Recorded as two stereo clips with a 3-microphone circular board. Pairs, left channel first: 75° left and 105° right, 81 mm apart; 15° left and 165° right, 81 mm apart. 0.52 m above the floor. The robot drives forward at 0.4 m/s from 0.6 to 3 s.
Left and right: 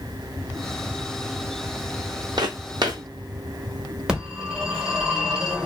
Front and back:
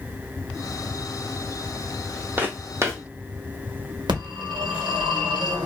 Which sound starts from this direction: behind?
A phone ringing, at 4.1 s.